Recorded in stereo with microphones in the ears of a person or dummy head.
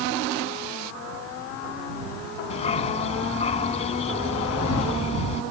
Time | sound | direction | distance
2.5 | a dog barking | 35° left (ahead or behind) | ?